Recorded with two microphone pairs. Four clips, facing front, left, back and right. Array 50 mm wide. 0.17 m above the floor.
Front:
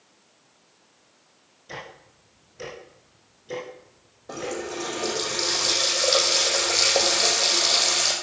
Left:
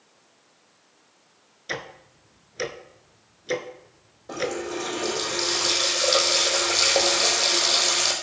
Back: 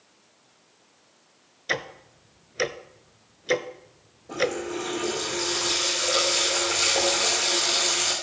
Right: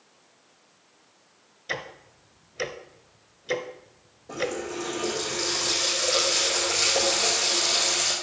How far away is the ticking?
About 0.9 m.